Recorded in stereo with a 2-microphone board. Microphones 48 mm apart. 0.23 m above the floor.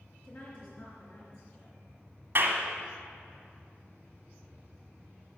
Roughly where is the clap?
Right.